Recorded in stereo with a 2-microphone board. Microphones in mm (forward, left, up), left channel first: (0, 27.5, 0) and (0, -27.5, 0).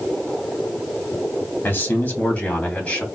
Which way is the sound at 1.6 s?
40° left (ahead or behind).